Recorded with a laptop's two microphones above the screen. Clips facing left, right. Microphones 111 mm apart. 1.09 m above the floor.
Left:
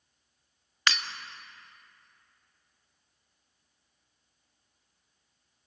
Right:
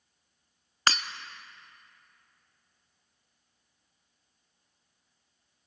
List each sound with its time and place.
0.9 s breaking glass: 40° right (ahead or behind), 0.6 m